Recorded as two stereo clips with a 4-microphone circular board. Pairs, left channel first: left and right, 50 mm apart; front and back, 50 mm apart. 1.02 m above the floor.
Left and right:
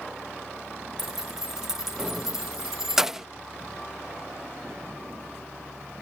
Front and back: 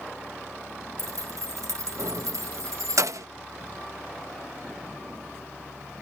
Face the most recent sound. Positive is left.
turn(degrees=-175)